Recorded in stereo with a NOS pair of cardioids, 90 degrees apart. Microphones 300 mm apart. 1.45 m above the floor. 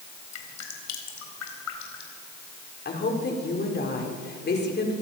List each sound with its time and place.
0.3 s dripping: 70° left, 4 m
2.9 s a woman speaking: 35° left, 4.5 m